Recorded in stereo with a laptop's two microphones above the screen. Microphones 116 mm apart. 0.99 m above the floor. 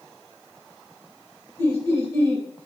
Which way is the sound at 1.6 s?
25° left (ahead or behind).